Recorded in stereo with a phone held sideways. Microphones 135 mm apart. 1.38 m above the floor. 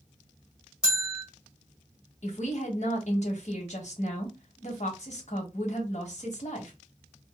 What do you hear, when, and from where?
0.8 s a bell: 5° right (ahead or behind), 1.3 m
2.2 s a woman speaking: 60° left (ahead or behind), 1.3 m